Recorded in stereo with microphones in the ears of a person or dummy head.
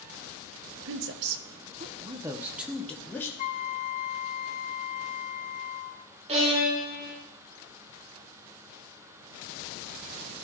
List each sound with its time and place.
0.8 s a woman speaking: 70° right (ahead or behind), 0.9 m; by 3.3 s 15° left (ahead or behind), 1.1 m
3.4 s a flute: 40° left (ahead or behind), 0.5 m
6.3 s a violin: 35° right (ahead or behind), 2.5 m